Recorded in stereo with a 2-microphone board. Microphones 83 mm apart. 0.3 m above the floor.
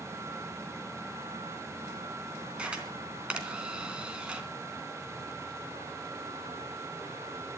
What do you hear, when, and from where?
2.6 s a camera shutter: 10° right (ahead or behind), 3 m